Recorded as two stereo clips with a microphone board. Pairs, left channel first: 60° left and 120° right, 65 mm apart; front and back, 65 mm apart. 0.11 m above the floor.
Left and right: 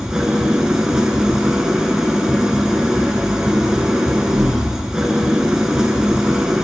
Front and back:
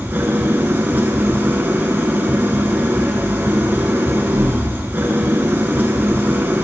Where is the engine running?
170° left, 0.7 m.